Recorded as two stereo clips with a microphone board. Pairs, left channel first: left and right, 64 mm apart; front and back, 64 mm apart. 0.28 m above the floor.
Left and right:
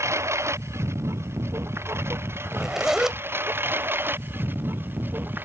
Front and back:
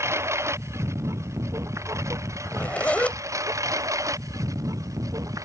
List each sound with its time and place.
0.0 s a lawn mower: 135° right; by 5.5 s 150° right
2.5 s a zipper: 20° right